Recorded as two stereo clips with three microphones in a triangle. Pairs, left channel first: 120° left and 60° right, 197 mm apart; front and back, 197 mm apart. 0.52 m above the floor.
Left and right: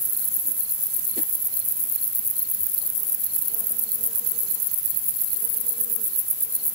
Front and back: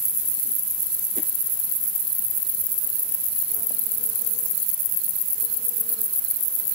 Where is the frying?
I don't hear frying.